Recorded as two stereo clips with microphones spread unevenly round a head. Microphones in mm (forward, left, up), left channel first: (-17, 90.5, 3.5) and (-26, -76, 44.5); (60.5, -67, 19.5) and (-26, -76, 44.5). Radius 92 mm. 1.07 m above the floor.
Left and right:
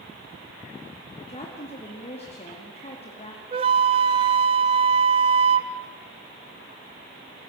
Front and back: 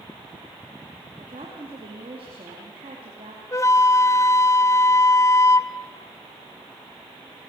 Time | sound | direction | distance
1.2 | a woman speaking | 135° left | 2.5 m
3.5 | a flute | 55° right | 0.6 m